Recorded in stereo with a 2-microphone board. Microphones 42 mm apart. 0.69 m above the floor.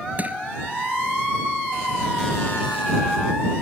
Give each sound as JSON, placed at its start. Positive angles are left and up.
{"t": 0.2, "sound": "crushing", "side_deg": -40}